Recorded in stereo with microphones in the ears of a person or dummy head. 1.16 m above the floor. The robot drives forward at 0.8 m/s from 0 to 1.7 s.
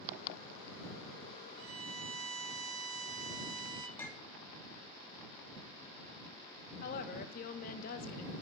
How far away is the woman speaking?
About 0.9 m.